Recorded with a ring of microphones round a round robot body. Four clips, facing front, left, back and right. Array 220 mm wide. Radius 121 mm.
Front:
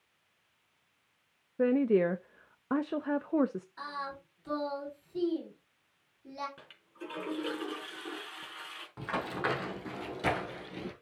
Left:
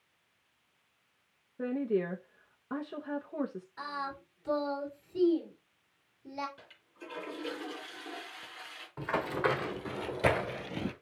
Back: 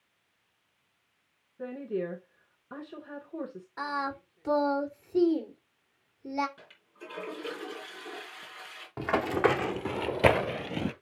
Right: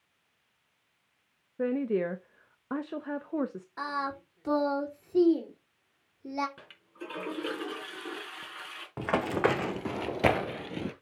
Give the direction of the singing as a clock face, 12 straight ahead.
4 o'clock.